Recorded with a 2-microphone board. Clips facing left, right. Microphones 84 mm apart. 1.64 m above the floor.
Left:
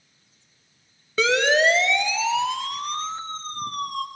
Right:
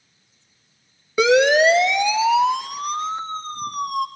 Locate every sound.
1.2 s a siren: 15° right (ahead or behind), 2.5 m; by 4.0 s 10° right (ahead or behind), 4.5 m